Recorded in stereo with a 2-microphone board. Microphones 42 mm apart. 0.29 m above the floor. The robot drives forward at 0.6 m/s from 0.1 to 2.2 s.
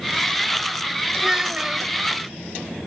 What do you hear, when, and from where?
1.2 s a child speaking: 15° right (ahead or behind), 0.9 m